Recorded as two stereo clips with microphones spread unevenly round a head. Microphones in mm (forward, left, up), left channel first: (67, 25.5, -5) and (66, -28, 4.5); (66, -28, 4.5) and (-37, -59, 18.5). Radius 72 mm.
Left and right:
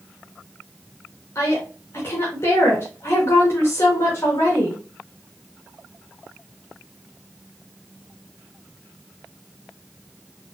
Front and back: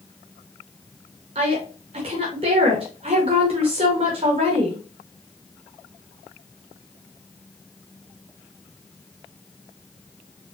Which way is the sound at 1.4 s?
145° left.